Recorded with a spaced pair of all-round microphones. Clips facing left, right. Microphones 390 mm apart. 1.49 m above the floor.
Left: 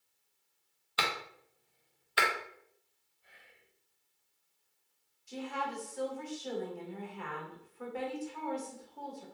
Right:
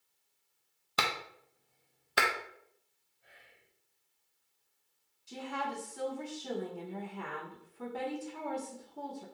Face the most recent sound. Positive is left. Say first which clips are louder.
# even
turn(degrees=-50)  # may be behind; listen again after turning